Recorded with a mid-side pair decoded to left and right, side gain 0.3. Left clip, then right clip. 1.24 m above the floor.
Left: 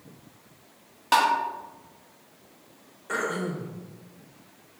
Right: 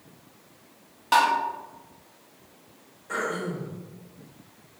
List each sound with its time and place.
1.1 s tapping: 30° left, 1.6 m
3.1 s throat clearing: 60° left, 1.1 m